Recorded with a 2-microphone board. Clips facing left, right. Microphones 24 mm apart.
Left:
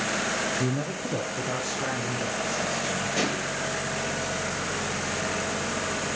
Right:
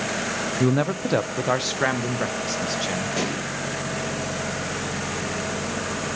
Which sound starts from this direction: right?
A man speaking, at 0.6 s.